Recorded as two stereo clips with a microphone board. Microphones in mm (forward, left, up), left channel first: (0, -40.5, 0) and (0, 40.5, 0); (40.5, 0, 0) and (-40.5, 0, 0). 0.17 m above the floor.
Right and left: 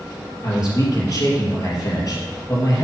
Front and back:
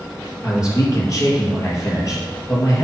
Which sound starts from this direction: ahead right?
A man speaking, at 0.4 s.